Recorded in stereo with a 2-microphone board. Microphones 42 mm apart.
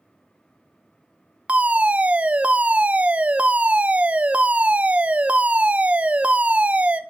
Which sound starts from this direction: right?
A fire alarm, at 1.5 s.